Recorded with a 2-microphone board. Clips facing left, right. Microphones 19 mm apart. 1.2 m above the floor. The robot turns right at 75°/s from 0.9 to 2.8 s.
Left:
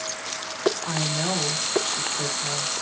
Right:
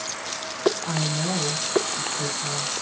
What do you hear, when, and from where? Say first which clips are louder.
0.8 s a woman speaking: even; 25° left, 1.1 m; by 2.7 s 160° left, 1.1 m